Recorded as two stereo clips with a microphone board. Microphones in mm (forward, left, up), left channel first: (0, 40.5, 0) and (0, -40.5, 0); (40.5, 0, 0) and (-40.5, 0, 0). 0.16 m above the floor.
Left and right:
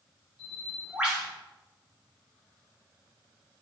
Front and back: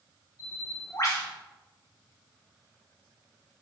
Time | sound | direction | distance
0.4 | a bird | 15° right | 2.5 m